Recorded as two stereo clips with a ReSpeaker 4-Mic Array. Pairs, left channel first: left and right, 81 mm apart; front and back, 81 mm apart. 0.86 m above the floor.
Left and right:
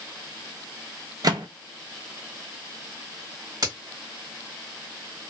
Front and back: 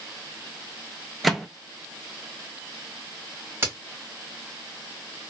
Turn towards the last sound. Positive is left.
turn(degrees=-120)